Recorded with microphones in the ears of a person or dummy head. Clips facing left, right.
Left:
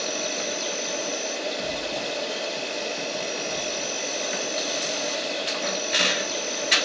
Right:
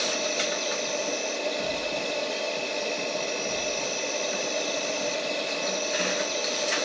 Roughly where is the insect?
Centre.